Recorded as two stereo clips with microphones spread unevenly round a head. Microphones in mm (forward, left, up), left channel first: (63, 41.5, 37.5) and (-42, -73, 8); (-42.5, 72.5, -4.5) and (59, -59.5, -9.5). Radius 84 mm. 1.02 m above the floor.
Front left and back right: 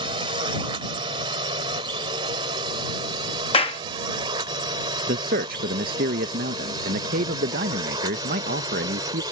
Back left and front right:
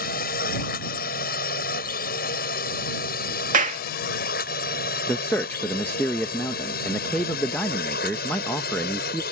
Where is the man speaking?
155° right.